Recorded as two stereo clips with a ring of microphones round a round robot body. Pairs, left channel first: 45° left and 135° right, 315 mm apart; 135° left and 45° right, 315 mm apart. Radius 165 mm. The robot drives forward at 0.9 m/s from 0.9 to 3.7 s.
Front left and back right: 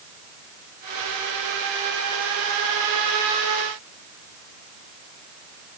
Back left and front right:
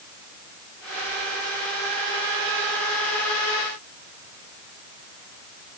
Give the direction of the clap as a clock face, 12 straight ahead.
No clap in this recording.